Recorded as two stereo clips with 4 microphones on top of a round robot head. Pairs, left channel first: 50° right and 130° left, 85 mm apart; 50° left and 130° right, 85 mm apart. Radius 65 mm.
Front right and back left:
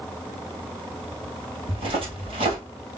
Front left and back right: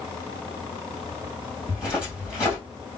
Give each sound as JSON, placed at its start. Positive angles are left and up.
{"t": 1.7, "sound": "footsteps", "azimuth_deg": 150, "distance_m": 2.0}